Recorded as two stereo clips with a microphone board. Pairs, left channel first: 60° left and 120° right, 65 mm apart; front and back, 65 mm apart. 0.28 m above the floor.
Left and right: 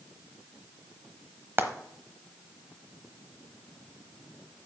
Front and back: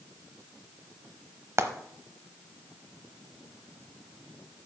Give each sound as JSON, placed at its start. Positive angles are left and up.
{"t": 1.6, "sound": "frying", "azimuth_deg": -165, "distance_m": 0.9}